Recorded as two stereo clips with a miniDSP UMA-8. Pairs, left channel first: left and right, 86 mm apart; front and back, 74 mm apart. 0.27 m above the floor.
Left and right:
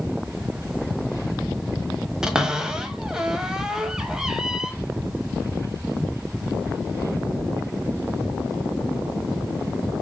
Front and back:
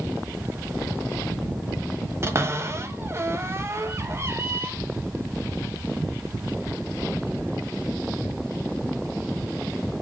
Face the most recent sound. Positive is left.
turn(degrees=-165)